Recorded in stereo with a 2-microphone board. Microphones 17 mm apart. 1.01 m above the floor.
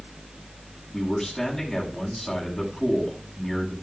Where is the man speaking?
15° left (ahead or behind), 9 m.